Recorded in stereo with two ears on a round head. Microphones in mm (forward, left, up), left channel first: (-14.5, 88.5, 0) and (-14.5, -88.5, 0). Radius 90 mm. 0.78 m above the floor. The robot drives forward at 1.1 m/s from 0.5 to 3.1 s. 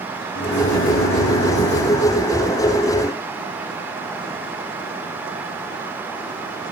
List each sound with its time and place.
0.3 s a microwave: 50° left (ahead or behind), 1.5 m